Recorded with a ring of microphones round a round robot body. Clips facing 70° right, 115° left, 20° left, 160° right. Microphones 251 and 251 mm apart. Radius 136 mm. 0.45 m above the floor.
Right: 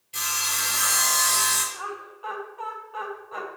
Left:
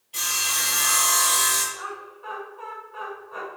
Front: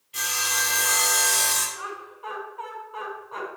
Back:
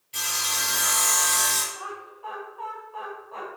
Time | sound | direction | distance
0.1 | sawing | 125° right | 5 m
1.7 | laughter | 40° right | 4.5 m